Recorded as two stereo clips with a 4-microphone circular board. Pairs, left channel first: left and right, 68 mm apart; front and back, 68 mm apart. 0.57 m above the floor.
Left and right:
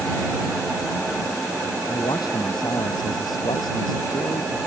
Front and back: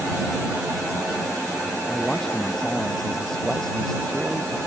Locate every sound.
1.9 s a man speaking: 85° left